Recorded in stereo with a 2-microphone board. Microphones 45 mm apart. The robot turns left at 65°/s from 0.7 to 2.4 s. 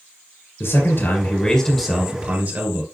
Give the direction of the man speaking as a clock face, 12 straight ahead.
10 o'clock.